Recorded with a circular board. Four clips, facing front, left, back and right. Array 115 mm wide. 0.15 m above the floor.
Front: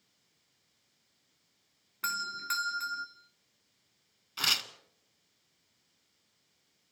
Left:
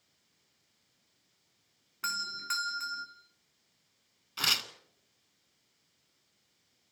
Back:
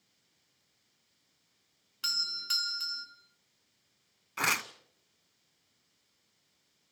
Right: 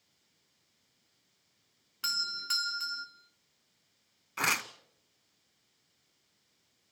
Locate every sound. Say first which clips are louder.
2.0 s a doorbell: left 2 dB, front 8 dB; 25° left, 1.9 m
4.4 s tearing paper: right 5 dB, back 5 dB; 140° right, 0.9 m